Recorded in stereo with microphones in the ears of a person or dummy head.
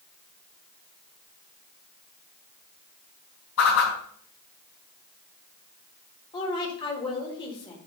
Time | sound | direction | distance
3.6 | a whoosh | 75° left (ahead or behind) | 7 m
6.3 | a woman speaking | 25° left (ahead or behind) | 3.5 m